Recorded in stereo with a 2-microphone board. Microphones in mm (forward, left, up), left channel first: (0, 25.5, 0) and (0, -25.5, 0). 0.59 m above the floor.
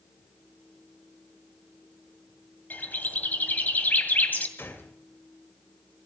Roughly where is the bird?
Left.